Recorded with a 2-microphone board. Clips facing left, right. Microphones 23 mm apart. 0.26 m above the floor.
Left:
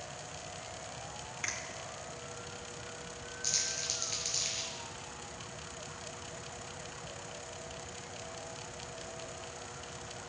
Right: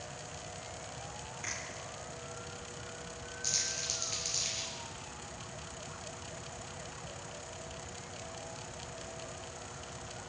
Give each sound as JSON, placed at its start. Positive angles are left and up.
{"t": 1.4, "sound": "a finger snap", "side_deg": 45, "distance_m": 3.0}
{"t": 3.4, "sound": "crumpling", "side_deg": 5, "distance_m": 3.5}